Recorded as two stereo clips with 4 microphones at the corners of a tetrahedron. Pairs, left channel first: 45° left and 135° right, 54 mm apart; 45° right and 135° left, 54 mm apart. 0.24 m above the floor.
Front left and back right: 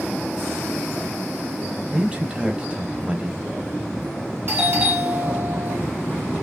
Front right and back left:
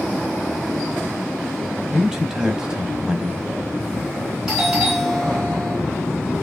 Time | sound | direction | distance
1.9 | a man speaking | 160° right | 1.0 m
4.5 | a doorbell | 150° right | 3 m